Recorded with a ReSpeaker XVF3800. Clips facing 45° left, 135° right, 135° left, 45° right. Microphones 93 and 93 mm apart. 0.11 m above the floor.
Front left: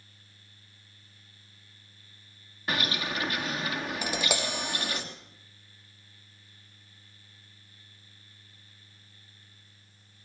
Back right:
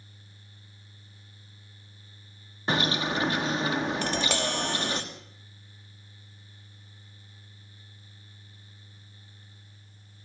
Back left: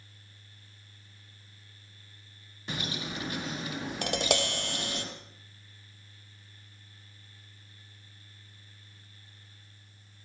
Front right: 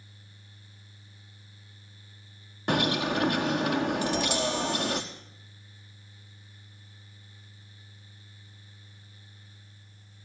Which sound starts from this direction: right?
A bird, at 2.7 s.